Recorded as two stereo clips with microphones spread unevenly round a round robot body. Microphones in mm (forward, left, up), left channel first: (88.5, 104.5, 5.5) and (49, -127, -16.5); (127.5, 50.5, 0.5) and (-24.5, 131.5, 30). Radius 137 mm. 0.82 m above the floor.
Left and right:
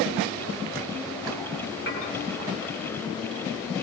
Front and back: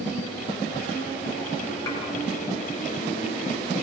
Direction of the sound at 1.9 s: 40° left.